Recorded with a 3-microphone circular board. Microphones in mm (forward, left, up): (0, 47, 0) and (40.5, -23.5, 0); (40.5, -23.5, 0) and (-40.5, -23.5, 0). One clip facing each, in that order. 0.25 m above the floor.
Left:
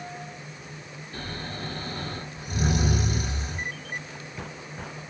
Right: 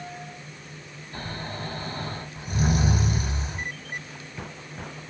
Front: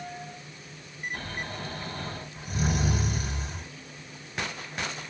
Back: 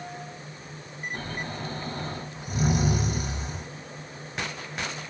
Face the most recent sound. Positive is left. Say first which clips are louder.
# right 2 dB, back 2 dB
turn(degrees=-105)